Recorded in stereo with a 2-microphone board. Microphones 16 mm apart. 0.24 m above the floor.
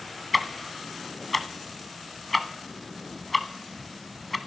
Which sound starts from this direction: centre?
Ticking, at 0.3 s.